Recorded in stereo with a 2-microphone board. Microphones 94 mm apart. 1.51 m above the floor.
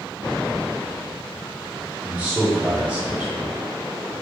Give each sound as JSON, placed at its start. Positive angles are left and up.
{"t": 2.0, "sound": "a man speaking", "side_deg": -15, "distance_m": 1.3}